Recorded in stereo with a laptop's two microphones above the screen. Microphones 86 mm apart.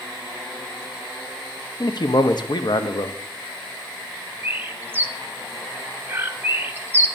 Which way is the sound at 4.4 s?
25° right (ahead or behind).